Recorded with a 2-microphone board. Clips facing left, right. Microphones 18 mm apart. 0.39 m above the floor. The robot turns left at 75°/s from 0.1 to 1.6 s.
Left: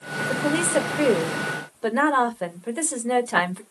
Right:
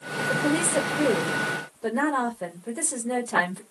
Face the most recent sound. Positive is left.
turn(degrees=60)